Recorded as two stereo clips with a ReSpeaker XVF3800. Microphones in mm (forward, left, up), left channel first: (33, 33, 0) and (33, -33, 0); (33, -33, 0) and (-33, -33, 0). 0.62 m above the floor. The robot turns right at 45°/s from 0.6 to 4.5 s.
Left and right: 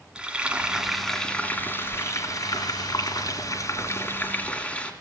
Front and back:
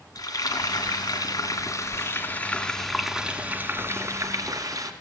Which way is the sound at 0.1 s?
15° right.